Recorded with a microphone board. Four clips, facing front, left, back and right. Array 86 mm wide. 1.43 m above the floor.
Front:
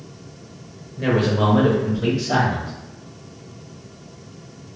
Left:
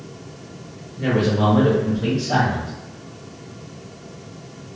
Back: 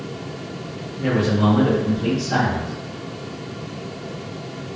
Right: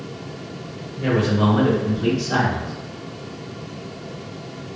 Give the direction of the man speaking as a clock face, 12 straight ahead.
12 o'clock.